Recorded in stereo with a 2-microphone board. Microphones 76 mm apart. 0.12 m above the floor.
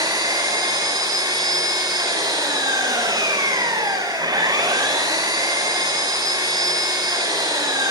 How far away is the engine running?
About 7.5 m.